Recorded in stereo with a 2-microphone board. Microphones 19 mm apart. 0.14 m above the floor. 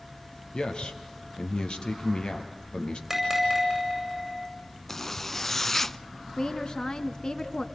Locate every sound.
0.5 s a man speaking: 50° left (ahead or behind), 3 m
3.1 s a bell: 20° right (ahead or behind), 8 m
4.9 s a zipper: 20° left (ahead or behind), 0.6 m
6.4 s a woman speaking: 40° left (ahead or behind), 1.4 m